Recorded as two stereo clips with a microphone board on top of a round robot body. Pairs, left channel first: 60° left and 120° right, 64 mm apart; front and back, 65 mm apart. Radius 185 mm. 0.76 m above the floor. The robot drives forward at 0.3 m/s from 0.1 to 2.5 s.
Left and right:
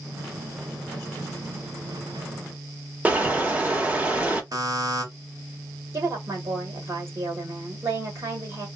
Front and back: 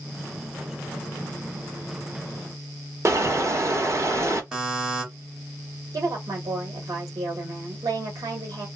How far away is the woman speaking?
About 1.7 m.